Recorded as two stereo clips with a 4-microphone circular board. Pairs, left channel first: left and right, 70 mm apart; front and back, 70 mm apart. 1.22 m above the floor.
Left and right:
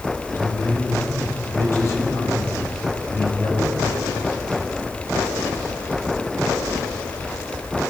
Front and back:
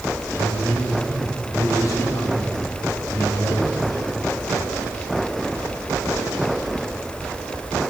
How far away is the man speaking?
About 5 m.